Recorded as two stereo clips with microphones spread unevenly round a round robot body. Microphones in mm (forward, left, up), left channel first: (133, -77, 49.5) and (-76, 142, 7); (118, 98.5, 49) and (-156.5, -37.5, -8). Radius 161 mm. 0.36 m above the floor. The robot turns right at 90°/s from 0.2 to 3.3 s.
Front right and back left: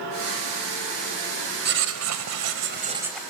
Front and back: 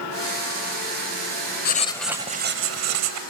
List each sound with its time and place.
1.6 s writing: 85° left, 0.9 m; by 3.2 s 135° right, 0.9 m